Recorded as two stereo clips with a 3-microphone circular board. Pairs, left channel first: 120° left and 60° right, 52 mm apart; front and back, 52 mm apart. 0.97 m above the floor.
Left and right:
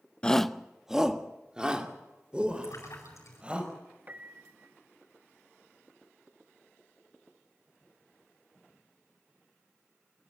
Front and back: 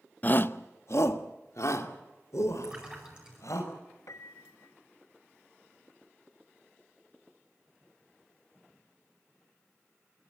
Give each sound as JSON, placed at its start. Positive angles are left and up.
{"t": 0.2, "sound": "a shout", "azimuth_deg": 50, "distance_m": 0.6}
{"t": 2.6, "sound": "a splash", "azimuth_deg": 105, "distance_m": 9.0}
{"t": 4.1, "sound": "a piano", "azimuth_deg": -5, "distance_m": 1.0}